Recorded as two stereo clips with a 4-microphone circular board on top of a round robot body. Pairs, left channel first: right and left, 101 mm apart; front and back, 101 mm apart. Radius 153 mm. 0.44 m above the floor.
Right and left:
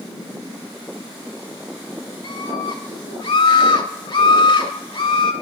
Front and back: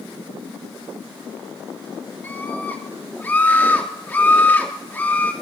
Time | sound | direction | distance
2.2 | a scream | 70° right | 3.5 m